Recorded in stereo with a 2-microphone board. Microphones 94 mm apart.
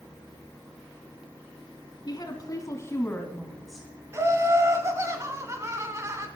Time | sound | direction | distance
2.1 | a woman speaking | 45° left (ahead or behind) | 2.5 m
4.1 | laughter | 30° right (ahead or behind) | 1.4 m